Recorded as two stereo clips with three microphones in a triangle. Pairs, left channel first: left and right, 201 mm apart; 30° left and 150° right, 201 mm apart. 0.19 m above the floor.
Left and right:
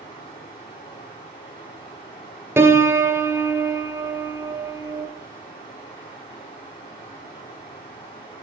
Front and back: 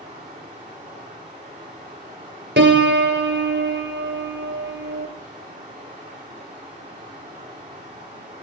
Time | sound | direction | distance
0.0 | running water | 155° left | 6 m
2.6 | a piano | 170° right | 1.4 m